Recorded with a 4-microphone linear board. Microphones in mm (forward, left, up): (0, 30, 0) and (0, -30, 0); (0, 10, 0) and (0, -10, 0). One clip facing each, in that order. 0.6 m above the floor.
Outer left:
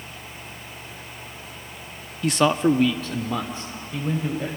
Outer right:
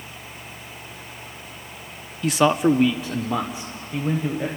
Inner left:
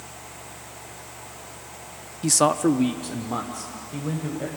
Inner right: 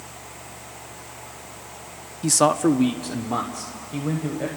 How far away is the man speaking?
About 0.6 m.